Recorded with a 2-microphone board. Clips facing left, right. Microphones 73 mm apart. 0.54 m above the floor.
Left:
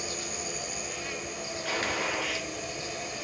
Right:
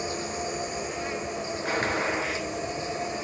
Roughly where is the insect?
Right.